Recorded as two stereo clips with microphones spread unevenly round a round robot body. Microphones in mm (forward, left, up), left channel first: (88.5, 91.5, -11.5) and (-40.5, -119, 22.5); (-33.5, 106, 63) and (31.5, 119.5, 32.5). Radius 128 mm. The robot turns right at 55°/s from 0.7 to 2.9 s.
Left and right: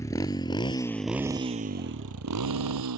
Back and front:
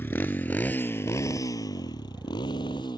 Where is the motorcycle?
140° left; by 3.0 s 115° right.